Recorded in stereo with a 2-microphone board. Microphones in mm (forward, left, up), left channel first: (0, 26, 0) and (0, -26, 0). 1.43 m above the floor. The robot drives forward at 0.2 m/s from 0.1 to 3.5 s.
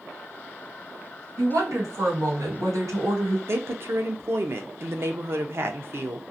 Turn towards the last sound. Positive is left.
turn(degrees=-50)  # may be behind; listen again after turning